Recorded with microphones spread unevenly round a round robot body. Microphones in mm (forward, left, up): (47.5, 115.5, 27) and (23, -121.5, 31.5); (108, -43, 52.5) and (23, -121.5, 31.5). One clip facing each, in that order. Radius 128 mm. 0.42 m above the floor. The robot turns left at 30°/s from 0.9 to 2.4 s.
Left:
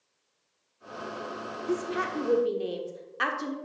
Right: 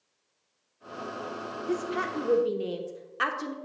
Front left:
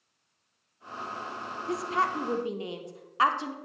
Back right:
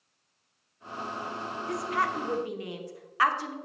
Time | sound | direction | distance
1.7 | a woman speaking | 10° left | 1.0 m